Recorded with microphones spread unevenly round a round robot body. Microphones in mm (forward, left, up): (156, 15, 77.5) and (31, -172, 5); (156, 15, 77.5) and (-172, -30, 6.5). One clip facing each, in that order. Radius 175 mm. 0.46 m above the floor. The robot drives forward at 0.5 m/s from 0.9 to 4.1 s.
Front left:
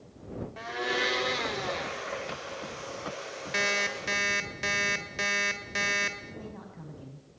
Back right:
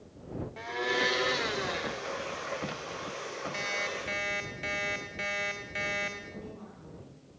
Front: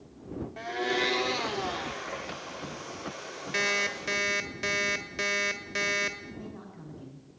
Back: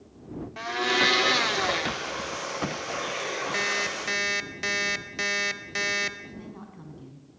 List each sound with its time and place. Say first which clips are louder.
0.6 s a blender: back right 1 dB, back 2 dB; 160° left, 0.8 m; by 2.1 s 170° left, 1.2 m
3.5 s an alarm clock: front left 4 dB, even; 100° left, 1.4 m; by 6.2 s 110° left, 1.5 m
6.3 s a woman speaking: front left 1 dB, even; 110° left, 5 m